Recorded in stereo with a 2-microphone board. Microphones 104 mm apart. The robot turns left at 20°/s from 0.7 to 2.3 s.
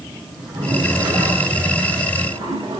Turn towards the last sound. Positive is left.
turn(degrees=-75)